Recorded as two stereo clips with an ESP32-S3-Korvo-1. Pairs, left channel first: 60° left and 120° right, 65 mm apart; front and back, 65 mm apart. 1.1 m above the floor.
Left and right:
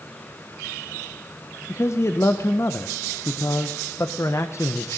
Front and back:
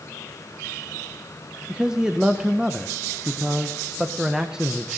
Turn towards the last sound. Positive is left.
turn(degrees=105)